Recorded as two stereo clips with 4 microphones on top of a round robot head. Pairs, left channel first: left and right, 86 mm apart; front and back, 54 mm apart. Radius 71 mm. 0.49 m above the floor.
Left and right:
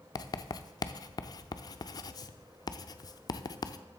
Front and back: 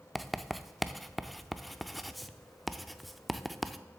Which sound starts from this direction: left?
Writing, at 0.1 s.